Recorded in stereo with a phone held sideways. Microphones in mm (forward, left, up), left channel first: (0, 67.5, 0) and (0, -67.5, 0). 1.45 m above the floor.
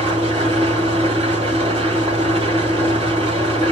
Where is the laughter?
I don't hear laughter.